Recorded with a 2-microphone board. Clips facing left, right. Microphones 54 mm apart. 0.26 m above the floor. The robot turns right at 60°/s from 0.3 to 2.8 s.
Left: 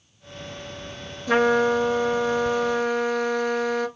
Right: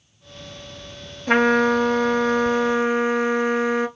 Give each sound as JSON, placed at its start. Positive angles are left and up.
{"t": 1.3, "sound": "a trumpet", "azimuth_deg": -120, "distance_m": 0.7}